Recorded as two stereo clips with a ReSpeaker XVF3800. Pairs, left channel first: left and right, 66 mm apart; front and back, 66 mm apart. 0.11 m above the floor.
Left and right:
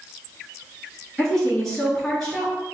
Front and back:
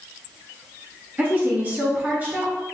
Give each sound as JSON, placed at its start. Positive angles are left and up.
{"t": 1.2, "sound": "a woman speaking", "azimuth_deg": 165, "distance_m": 1.1}